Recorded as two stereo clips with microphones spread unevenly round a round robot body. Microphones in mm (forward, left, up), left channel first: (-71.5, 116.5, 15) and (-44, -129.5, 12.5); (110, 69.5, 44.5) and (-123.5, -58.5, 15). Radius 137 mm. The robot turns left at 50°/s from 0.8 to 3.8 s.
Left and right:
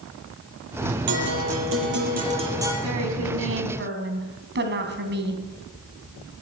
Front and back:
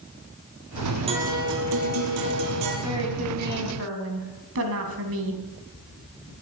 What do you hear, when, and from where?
1.1 s a guitar: 80° right, 4.5 m; by 2.7 s 165° right, 4.5 m
2.8 s a woman speaking: 75° right, 3.5 m; by 5.4 s 120° right, 3.5 m